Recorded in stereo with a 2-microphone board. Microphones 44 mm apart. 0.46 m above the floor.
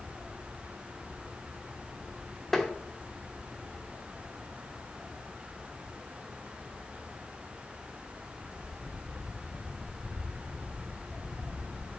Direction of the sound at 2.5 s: 5° left (ahead or behind).